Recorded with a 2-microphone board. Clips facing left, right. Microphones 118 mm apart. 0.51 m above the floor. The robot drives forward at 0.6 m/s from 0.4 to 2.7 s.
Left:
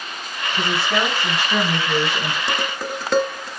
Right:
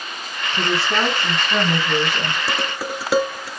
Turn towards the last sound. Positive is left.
turn(degrees=-5)  # may be behind; listen again after turning